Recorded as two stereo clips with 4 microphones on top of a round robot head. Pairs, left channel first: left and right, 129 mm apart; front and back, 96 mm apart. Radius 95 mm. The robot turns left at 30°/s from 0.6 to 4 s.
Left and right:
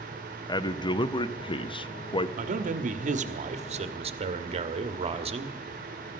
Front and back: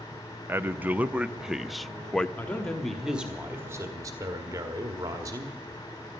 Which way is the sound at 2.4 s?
75° right.